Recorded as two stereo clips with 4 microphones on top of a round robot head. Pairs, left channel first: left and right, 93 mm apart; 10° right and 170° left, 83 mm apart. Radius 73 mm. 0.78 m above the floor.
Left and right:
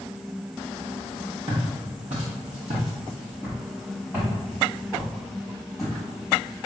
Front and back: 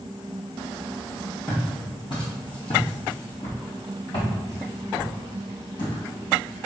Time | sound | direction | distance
1.5 | footsteps | 80° right | 1.5 m